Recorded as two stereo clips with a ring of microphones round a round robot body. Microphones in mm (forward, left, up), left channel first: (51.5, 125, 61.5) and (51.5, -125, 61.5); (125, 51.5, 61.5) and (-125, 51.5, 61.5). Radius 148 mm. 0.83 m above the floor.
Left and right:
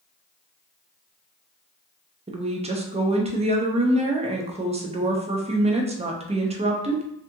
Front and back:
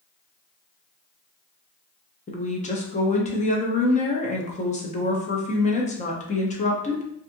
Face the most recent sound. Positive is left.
turn(degrees=-40)